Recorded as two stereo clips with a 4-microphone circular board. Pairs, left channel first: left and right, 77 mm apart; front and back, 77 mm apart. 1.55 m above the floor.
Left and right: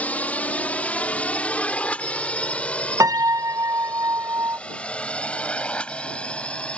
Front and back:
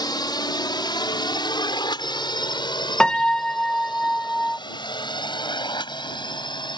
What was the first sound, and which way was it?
A drone, 20° left.